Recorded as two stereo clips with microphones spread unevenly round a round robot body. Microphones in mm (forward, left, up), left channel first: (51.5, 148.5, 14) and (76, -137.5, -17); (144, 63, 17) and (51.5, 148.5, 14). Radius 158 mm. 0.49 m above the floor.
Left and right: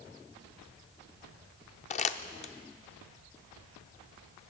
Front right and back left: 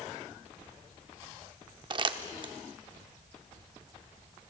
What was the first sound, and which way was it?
Crumpling, 160° left.